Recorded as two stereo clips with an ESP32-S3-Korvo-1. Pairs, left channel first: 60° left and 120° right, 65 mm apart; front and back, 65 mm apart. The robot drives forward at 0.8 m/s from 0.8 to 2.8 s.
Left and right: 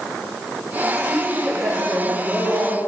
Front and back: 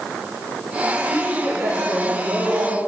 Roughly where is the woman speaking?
Behind left.